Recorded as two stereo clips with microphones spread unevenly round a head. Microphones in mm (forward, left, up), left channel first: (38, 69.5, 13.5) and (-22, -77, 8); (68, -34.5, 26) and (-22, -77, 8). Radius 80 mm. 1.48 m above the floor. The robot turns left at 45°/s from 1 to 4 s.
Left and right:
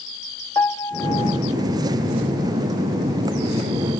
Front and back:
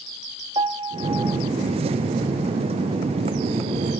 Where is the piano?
140° left, 0.7 m; by 1.4 s 125° left, 0.7 m.